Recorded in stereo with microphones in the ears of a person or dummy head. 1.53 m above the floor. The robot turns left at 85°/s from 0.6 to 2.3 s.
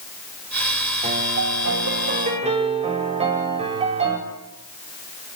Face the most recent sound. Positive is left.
turn(degrees=-145)